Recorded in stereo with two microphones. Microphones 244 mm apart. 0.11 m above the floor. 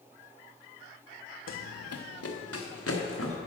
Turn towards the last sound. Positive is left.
turn(degrees=65)  # may be behind; listen again after turning